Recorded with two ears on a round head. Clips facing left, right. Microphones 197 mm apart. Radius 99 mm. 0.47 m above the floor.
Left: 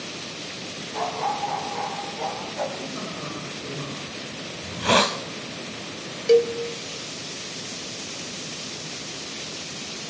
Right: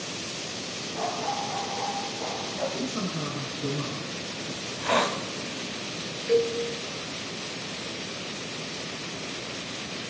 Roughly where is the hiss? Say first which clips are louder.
Left 5 dB; left.